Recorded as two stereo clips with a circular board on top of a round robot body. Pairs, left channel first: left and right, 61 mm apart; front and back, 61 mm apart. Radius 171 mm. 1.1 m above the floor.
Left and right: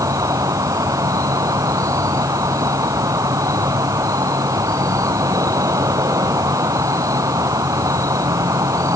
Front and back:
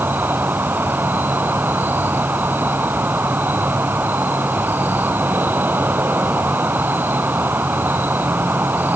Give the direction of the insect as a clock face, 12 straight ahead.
4 o'clock.